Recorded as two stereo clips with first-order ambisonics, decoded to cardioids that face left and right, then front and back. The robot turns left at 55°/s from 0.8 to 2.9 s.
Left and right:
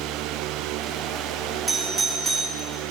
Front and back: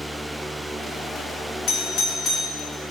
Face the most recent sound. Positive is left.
turn(degrees=-80)